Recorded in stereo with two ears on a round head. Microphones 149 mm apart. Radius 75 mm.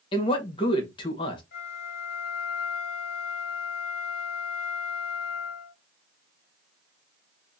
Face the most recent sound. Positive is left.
turn(degrees=55)  # may be behind; listen again after turning